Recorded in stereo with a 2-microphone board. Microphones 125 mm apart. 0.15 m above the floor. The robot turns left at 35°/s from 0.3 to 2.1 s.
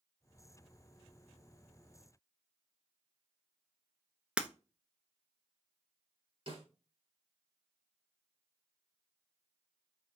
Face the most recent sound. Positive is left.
turn(degrees=-50)  # may be behind; listen again after turning